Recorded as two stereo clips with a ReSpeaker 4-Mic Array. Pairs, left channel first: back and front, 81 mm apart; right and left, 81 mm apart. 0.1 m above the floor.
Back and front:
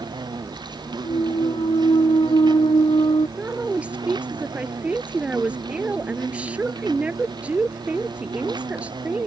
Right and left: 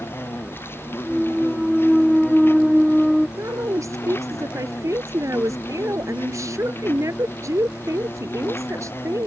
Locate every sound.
0.0 s an insect: 30° right
1.0 s a clunk: straight behind
3.4 s a woman speaking: 65° left